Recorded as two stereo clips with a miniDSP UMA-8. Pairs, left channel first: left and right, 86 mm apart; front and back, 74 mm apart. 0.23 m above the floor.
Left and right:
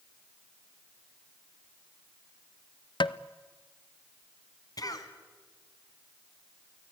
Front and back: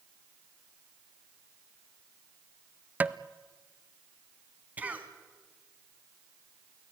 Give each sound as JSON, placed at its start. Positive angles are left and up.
{"t": 3.0, "sound": "tapping", "azimuth_deg": 115, "distance_m": 0.6}
{"t": 4.8, "sound": "a cough", "azimuth_deg": 115, "distance_m": 2.0}